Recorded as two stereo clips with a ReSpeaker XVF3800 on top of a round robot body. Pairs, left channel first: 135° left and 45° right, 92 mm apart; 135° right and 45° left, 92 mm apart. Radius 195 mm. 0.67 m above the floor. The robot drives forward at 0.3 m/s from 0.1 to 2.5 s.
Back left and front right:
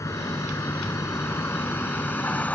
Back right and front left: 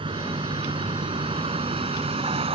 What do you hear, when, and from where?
0.0 s a vehicle: 75° left; by 2.5 s 60° left